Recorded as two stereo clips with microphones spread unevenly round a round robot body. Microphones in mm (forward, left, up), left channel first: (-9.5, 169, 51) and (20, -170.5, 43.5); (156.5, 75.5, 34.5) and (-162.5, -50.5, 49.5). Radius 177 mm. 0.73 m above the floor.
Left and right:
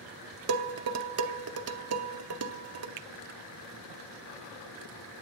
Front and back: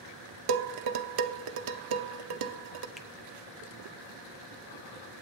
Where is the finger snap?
70° right, 0.6 m.